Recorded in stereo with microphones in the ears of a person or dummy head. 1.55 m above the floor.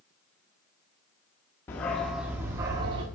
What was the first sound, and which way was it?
A dog barking, 10° left (ahead or behind).